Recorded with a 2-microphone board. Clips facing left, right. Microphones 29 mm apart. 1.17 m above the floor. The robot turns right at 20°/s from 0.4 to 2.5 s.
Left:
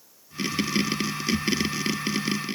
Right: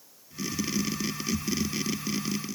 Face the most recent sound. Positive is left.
No sound to turn to.